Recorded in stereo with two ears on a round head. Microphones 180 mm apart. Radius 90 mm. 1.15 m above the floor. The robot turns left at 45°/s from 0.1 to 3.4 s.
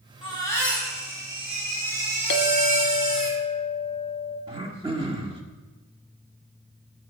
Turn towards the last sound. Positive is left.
turn(degrees=-30)  # may be behind; listen again after turning